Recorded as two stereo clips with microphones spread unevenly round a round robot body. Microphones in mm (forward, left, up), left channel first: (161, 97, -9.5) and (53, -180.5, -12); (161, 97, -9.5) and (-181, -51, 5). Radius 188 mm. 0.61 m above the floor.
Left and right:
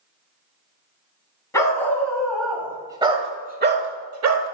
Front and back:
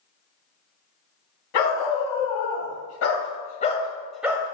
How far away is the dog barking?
About 2.0 m.